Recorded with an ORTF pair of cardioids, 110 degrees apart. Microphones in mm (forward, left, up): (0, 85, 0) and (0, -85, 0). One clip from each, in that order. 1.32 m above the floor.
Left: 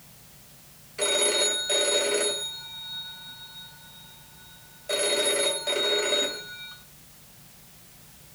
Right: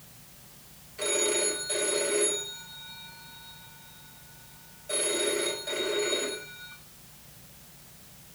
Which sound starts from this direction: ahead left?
A phone ringing, at 1.0 s.